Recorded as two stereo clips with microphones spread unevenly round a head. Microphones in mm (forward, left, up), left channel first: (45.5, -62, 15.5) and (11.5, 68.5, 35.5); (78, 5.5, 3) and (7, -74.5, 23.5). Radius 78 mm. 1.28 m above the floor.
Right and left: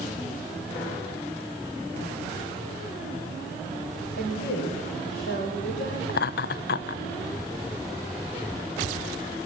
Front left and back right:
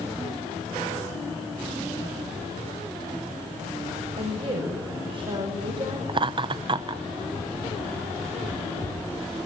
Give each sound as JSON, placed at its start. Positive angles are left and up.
{"t": 4.2, "sound": "a woman speaking", "azimuth_deg": -95, "distance_m": 5.5}
{"t": 6.1, "sound": "laughter", "azimuth_deg": -85, "distance_m": 0.6}